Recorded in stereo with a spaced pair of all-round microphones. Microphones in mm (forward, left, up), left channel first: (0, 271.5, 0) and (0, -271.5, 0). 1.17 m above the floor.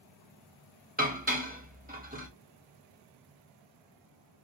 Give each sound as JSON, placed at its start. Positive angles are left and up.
{"t": 1.0, "sound": "dishes clattering", "side_deg": -15, "distance_m": 0.9}